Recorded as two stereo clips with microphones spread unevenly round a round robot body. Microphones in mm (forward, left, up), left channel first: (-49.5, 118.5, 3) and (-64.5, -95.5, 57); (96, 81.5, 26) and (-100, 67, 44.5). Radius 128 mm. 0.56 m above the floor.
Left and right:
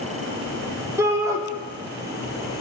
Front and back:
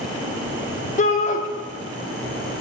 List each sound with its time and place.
1.0 s a shout: 5° right, 1.3 m